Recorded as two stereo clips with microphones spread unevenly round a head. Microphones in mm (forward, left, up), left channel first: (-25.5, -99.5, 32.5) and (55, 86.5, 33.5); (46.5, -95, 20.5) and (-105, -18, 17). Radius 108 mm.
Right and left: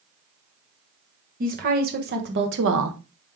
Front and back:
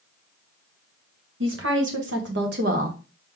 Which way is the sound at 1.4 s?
120° left.